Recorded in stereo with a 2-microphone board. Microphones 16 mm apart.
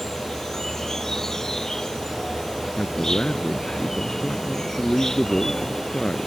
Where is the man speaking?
60° left (ahead or behind).